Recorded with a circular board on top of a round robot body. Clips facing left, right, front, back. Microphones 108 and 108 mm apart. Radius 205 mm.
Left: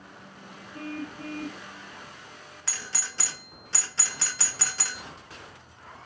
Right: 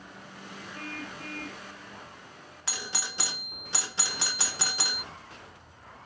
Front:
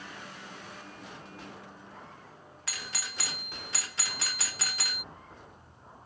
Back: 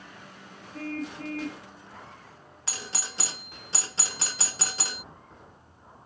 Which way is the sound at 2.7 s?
150° right.